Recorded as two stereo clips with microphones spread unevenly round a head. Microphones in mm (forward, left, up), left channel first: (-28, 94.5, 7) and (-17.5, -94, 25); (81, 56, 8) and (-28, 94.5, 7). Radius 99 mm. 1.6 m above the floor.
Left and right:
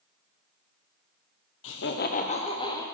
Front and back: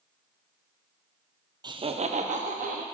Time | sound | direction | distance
1.6 | laughter | 105° left | 0.9 m